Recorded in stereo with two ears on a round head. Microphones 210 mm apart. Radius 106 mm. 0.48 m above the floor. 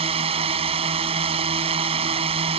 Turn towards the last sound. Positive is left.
turn(degrees=-25)  # may be behind; listen again after turning